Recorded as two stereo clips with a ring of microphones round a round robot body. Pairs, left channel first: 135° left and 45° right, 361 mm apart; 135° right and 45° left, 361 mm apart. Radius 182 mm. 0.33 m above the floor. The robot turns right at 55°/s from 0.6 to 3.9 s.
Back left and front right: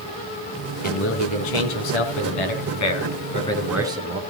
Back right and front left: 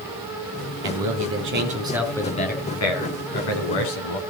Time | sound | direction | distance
0.8 | a man speaking | 70° left | 3.5 m